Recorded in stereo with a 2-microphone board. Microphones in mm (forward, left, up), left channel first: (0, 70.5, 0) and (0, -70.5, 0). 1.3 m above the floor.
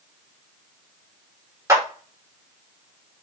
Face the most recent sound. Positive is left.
turn(degrees=-20)  # may be behind; listen again after turning